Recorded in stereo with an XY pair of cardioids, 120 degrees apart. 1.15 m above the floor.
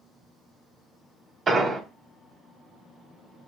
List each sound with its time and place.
1.5 s an explosion: 30° right, 0.7 m